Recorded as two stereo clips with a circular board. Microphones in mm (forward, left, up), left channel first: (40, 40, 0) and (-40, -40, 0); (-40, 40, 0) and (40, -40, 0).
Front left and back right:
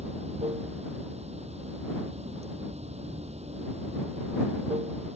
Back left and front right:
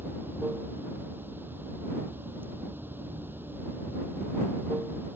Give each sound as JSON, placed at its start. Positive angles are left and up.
{"t": 0.0, "sound": "running water", "azimuth_deg": -120}